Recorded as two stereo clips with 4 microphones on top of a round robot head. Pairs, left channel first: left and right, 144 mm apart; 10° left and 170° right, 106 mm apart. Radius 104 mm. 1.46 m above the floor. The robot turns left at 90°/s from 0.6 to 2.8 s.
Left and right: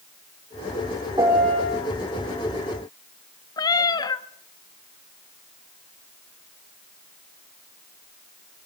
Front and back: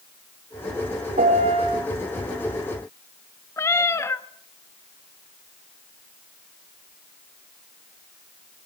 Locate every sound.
1.2 s a piano: 160° right, 4 m; by 1.8 s 150° left, 4 m
3.6 s a cat meowing: 50° left, 0.9 m